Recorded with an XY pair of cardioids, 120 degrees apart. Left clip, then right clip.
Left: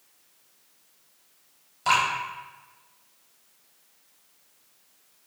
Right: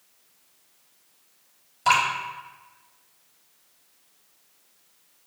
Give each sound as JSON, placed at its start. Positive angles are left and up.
{"t": 1.9, "sound": "dripping", "azimuth_deg": -15, "distance_m": 4.5}